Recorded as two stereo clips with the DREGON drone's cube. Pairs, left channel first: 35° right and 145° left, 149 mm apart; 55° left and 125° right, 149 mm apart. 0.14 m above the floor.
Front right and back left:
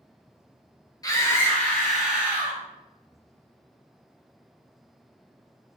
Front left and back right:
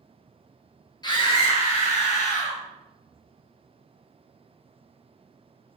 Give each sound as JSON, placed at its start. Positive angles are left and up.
{"t": 1.0, "sound": "a scream", "azimuth_deg": 15, "distance_m": 1.6}